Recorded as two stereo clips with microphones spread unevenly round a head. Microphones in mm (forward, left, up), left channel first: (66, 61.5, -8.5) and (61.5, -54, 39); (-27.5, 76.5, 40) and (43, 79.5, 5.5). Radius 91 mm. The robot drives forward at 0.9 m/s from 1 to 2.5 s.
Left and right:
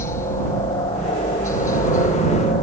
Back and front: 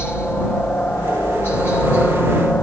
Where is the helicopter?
105° left; by 2.6 s 110° left.